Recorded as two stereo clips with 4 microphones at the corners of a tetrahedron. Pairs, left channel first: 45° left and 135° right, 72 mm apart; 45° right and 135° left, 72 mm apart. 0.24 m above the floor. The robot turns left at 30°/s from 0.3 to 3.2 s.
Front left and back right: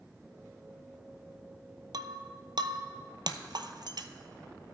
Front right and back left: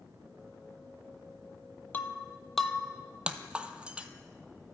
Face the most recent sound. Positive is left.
turn(degrees=-150)